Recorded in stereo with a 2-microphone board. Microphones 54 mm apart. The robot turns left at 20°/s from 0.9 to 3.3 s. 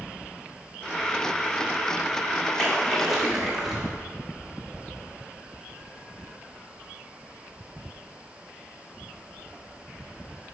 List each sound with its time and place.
2.6 s a splash: 10° left (ahead or behind), 2.0 m; by 3.9 s 5° right (ahead or behind), 2.0 m